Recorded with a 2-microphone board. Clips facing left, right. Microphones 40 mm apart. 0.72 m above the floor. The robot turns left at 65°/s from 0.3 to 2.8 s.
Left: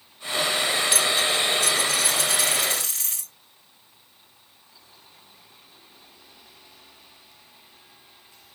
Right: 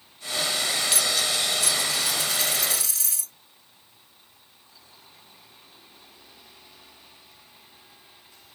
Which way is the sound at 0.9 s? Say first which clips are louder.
Left 3 dB; 175° left.